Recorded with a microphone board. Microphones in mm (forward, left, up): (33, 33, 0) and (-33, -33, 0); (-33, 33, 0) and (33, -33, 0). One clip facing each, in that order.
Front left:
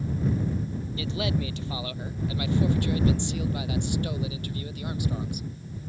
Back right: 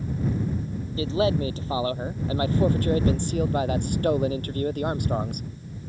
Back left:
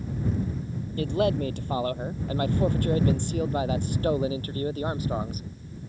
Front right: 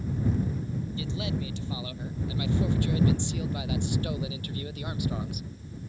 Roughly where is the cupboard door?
I don't hear a cupboard door.